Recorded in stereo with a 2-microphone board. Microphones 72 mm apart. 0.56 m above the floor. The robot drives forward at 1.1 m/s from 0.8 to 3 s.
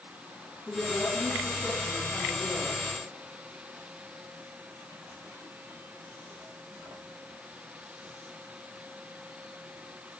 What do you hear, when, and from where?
0.7 s a woman speaking: 15° left (ahead or behind), 5 m; by 2.8 s 10° left (ahead or behind), 7.5 m